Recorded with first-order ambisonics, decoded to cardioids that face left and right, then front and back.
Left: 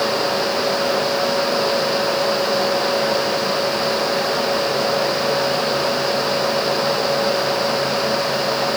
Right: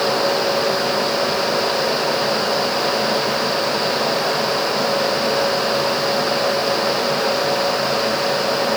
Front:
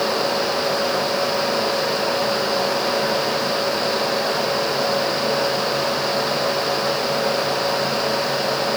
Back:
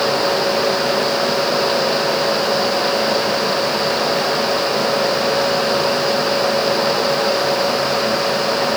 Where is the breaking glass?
No breaking glass in this recording.